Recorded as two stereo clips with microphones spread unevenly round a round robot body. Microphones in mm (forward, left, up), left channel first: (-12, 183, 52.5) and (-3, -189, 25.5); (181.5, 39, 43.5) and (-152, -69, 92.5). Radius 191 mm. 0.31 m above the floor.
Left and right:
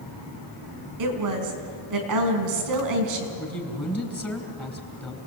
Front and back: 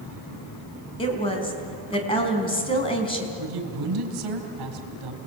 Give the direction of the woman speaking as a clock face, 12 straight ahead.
2 o'clock.